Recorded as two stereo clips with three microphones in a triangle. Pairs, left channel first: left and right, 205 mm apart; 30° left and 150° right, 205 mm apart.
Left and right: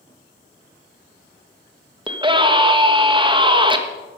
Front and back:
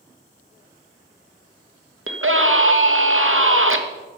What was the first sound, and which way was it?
A scream, 160° right.